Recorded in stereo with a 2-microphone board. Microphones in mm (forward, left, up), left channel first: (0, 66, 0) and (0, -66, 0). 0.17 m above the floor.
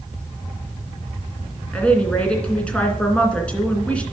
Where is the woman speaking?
10° left (ahead or behind), 2.5 m.